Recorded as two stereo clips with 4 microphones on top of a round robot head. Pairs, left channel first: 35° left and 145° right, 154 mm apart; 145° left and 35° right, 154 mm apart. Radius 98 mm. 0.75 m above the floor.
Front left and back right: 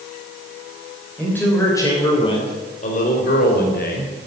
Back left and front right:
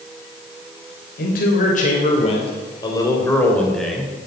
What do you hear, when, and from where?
1.2 s a man speaking: 120° left, 3.5 m; by 4.1 s 50° left, 4 m